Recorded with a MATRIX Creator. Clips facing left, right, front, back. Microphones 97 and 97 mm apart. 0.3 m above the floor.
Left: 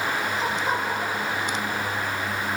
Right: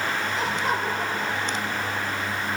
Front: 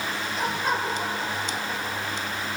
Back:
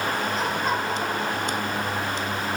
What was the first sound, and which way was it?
Laughter, 90° right.